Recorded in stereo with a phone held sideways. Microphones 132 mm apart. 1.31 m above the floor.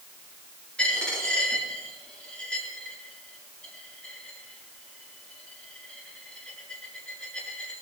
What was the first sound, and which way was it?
A dropped coin, 10° left (ahead or behind).